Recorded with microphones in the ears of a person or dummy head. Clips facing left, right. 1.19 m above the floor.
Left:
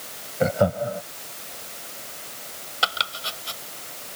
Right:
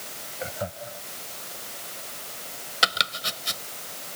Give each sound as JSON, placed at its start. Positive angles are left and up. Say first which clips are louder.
{"t": 0.4, "sound": "laughter", "louder": "left 13 dB", "side_deg": 75}
{"t": 2.8, "sound": "chopping", "louder": "even", "side_deg": -25}